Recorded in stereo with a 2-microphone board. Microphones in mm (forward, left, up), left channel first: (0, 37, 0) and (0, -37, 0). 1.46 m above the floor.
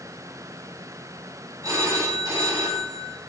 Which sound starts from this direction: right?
A phone ringing, at 1.6 s.